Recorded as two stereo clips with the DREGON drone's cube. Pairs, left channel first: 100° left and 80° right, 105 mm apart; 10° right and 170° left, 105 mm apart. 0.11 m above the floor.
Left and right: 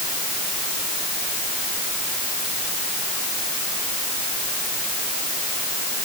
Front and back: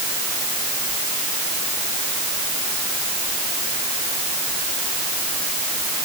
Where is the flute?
No flute in this recording.